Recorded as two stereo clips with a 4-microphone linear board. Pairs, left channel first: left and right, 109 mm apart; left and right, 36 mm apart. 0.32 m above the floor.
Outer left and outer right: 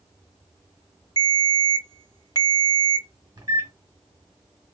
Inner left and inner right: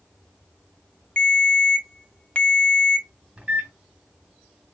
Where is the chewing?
No chewing in this recording.